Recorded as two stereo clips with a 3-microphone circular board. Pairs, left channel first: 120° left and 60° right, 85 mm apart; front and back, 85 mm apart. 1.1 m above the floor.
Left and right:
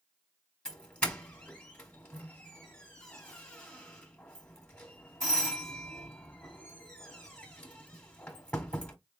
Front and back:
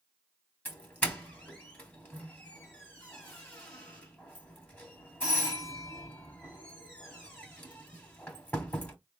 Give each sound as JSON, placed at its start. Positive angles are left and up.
{"t": 0.7, "sound": "a doorbell", "azimuth_deg": 55, "distance_m": 1.3}